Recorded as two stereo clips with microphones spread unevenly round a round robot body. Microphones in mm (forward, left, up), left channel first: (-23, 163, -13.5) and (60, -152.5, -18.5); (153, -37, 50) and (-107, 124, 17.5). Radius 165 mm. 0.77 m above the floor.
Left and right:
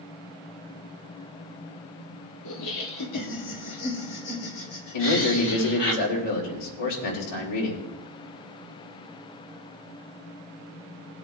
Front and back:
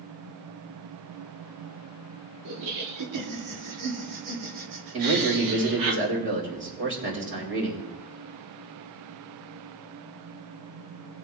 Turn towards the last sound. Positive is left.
turn(degrees=100)